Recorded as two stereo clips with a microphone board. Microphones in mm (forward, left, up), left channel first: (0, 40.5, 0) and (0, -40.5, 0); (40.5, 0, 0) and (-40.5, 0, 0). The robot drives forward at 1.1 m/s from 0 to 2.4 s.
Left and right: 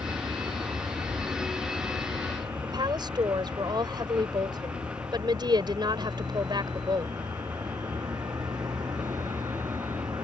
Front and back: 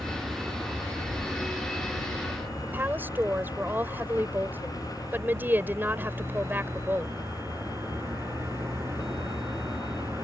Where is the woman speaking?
115° right.